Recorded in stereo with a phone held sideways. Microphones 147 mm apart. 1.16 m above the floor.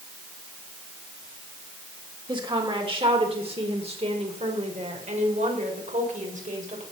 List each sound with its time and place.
2.3 s a woman speaking: 30° right (ahead or behind), 3.5 m; by 6.8 s 60° right (ahead or behind), 5 m